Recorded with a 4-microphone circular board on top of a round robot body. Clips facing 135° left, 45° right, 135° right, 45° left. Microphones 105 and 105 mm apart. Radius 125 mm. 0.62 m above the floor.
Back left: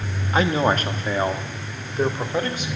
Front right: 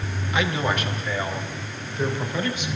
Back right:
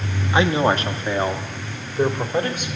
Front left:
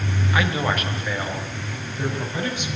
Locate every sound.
0.3 s a man speaking: 170° left, 1.4 m; by 2.7 s 175° right, 2.5 m